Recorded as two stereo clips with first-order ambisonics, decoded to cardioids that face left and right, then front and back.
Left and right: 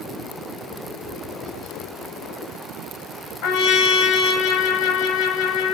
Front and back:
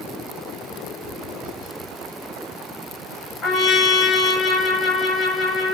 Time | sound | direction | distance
0.8 | tapping | 5° right | 5 m
3.4 | a trumpet | 60° left | 4 m